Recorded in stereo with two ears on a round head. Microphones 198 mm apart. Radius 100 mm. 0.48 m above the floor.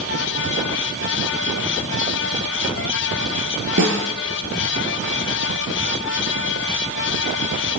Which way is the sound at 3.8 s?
55° right (ahead or behind).